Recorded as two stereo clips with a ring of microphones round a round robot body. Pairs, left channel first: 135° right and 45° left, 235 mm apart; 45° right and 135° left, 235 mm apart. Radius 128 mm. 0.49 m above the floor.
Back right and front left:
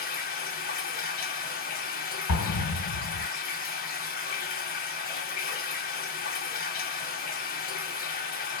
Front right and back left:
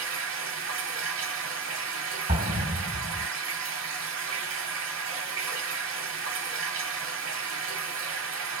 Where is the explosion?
165° right, 2 m.